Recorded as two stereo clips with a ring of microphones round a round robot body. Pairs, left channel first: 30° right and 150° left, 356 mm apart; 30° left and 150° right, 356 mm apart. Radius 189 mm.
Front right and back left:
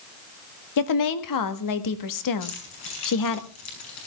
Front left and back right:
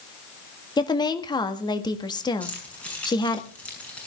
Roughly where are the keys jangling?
Ahead right.